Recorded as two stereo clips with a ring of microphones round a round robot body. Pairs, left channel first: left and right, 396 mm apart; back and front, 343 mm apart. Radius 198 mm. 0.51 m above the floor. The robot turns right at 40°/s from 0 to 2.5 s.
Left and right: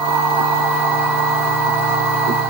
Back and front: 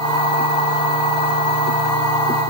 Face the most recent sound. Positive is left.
No sound to turn to.